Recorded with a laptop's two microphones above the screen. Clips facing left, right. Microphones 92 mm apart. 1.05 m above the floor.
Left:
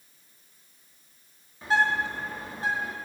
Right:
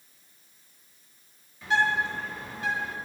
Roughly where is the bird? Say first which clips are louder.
Left 1 dB; left.